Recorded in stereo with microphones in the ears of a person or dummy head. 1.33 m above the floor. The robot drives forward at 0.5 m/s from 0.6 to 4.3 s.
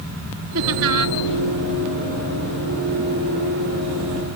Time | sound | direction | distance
0.6 | laughter | 75° right (ahead or behind) | ?